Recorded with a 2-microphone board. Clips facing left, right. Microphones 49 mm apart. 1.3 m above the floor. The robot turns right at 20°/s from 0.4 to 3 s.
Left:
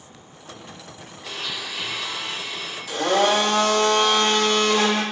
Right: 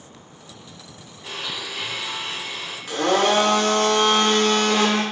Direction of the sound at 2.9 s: 50° right (ahead or behind).